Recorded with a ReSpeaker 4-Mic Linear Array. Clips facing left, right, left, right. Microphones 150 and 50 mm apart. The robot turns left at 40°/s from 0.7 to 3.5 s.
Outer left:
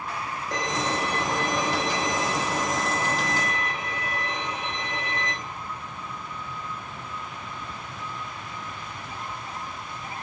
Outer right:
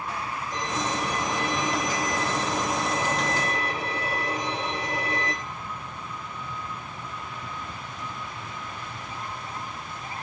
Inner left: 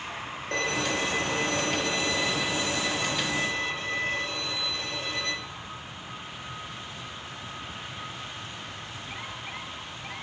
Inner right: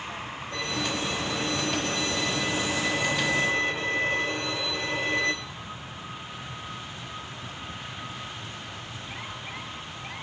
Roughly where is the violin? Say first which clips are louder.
Outer left 2 dB, inner left 3 dB; left.